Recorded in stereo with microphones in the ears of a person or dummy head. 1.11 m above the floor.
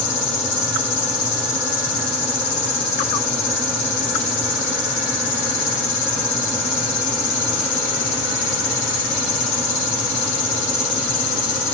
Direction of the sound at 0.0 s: 65° left (ahead or behind).